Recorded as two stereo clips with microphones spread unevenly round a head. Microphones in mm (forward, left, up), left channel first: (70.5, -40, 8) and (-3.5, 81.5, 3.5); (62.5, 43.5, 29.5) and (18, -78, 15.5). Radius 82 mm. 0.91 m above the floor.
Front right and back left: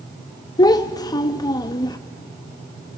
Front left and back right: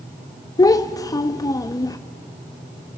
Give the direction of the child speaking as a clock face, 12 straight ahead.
12 o'clock.